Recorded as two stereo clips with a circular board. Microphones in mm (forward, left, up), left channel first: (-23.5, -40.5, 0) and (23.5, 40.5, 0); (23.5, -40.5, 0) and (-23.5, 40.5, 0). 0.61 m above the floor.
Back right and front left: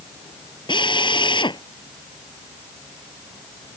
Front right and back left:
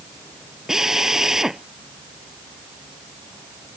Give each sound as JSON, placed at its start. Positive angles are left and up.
{"t": 0.7, "sound": "a drill", "azimuth_deg": -155}